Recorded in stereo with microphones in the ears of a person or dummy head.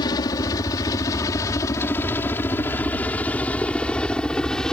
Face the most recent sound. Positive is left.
turn(degrees=5)  # may be behind; listen again after turning